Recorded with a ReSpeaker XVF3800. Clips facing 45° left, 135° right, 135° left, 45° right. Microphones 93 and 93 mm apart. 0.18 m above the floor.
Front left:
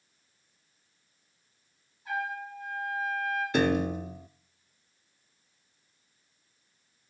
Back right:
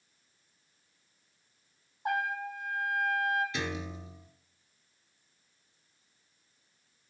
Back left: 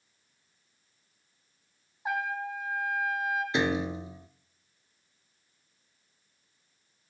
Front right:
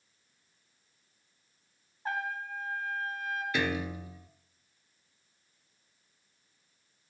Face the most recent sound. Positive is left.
turn(degrees=70)